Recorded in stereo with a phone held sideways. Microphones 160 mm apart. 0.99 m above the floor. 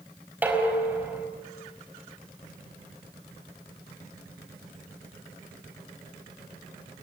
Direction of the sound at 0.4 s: 10° right (ahead or behind).